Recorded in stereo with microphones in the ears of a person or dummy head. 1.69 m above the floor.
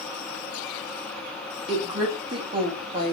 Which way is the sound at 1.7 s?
30° right (ahead or behind).